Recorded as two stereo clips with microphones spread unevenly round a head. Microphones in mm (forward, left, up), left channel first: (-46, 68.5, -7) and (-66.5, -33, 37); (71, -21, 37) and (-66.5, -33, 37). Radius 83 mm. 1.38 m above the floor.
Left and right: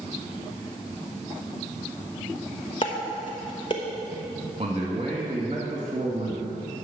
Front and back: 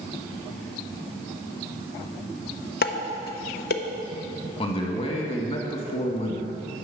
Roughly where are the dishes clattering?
Ahead.